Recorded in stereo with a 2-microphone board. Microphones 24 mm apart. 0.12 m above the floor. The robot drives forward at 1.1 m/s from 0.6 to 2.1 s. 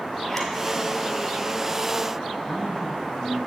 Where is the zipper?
10° left (ahead or behind), 1.3 m.